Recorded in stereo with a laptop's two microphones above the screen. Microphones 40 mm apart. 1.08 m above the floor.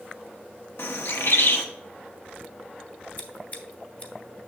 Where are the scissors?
35° left (ahead or behind), 1.0 m.